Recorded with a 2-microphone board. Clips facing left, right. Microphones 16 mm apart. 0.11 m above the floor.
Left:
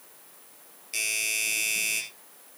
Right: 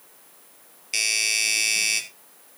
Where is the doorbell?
30° right (ahead or behind), 3 m.